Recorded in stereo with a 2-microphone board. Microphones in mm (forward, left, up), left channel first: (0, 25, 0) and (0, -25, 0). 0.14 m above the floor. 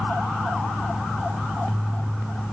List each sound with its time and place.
Only background noise.